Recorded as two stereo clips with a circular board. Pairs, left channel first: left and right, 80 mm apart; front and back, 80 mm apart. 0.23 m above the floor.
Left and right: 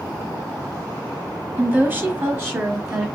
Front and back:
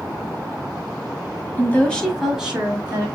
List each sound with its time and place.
1.6 s a woman speaking: 40° right, 1.2 m; by 3.1 s 140° right, 1.3 m